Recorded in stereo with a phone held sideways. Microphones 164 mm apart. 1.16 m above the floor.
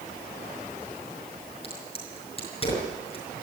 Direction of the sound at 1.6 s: 35° left (ahead or behind).